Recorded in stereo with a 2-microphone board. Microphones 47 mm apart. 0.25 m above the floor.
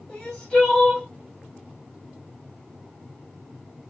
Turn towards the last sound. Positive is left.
turn(degrees=15)  # may be behind; listen again after turning